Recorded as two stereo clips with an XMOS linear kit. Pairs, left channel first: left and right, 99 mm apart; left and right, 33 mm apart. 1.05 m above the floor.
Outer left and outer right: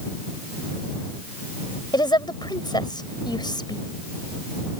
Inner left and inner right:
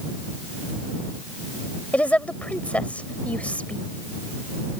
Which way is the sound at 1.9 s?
45° left (ahead or behind).